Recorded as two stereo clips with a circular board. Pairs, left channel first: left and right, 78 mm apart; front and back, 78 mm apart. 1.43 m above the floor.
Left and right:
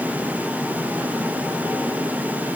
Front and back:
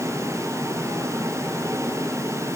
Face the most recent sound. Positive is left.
No sound to turn to.